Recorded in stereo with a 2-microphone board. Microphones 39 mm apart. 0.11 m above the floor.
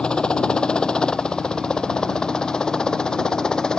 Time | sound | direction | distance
0.0 | a helicopter | 20° left (ahead or behind) | ?